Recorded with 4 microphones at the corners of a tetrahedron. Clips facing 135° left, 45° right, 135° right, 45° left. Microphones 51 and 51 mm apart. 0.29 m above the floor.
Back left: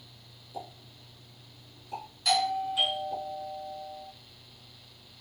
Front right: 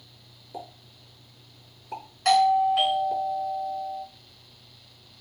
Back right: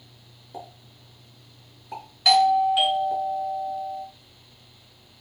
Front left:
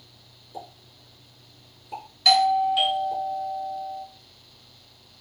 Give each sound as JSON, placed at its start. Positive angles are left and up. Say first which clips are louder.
{"t": 0.5, "sound": "a pop", "louder": "front right 2 dB, even", "azimuth_deg": -90, "distance_m": 4.5}
{"t": 2.2, "sound": "a doorbell", "louder": "front right 9 dB, back right 1 dB", "azimuth_deg": -60, "distance_m": 2.5}